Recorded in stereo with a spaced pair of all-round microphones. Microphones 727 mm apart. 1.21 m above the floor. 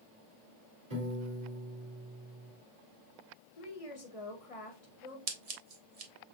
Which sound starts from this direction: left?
A woman speaking, at 3.6 s.